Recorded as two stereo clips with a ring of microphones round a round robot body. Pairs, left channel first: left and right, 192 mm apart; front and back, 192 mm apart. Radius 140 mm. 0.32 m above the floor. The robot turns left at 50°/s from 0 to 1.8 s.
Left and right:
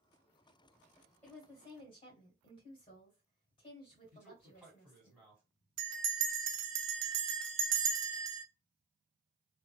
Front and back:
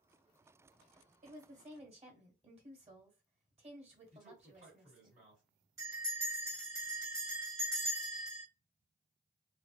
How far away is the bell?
About 0.5 m.